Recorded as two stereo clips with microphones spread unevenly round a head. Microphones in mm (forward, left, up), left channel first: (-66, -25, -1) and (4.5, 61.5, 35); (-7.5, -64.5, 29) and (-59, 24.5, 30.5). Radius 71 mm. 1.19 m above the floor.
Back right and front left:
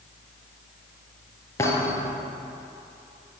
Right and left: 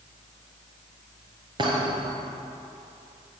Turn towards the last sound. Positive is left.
turn(degrees=160)